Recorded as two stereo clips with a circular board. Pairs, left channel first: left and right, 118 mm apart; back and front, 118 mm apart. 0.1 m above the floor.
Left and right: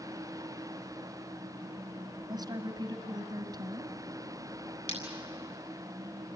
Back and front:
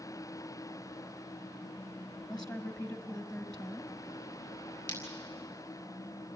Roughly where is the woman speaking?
Right.